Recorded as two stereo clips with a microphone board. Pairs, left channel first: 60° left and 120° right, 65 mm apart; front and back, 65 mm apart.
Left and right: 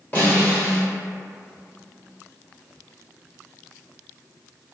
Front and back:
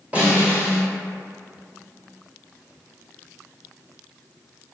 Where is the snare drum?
115° left, 1.4 m.